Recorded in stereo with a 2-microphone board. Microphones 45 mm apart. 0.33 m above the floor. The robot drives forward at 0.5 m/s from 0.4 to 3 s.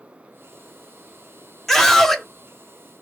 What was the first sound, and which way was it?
A scream, 10° left (ahead or behind).